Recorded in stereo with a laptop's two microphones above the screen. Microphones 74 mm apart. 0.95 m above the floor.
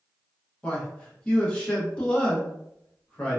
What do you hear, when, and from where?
0.6 s a man speaking: 15° left (ahead or behind), 1.0 m